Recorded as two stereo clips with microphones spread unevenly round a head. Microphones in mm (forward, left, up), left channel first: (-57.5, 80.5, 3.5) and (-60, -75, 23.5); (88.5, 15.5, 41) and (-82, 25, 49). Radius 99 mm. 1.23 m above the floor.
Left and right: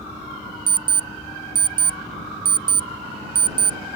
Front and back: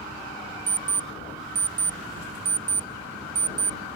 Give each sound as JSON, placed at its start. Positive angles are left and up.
{"t": 0.7, "sound": "an alarm clock", "azimuth_deg": -115}